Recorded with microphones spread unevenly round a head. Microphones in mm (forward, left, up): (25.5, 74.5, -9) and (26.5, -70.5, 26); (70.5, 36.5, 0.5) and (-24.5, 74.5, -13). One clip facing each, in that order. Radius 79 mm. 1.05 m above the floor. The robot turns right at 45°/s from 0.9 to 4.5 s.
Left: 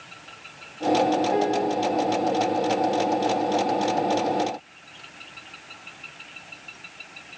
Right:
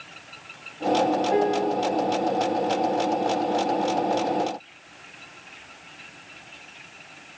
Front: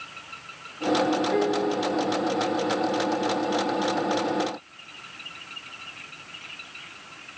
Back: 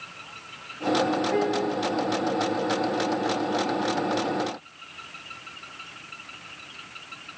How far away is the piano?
About 0.6 m.